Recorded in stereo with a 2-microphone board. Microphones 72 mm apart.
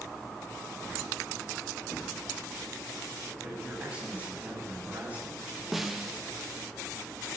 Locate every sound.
3.4 s a man speaking: 15° right (ahead or behind), 8 m; by 5.5 s 25° right (ahead or behind), 8.5 m
5.7 s a snare drum: 5° right (ahead or behind), 1.6 m